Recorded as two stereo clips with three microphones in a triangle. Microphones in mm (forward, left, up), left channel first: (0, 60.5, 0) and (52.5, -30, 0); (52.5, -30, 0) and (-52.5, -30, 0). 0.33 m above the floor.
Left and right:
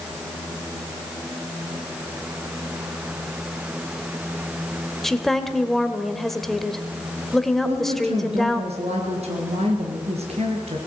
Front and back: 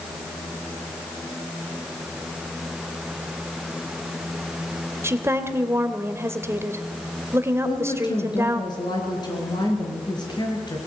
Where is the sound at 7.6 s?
50° right, 4.5 m.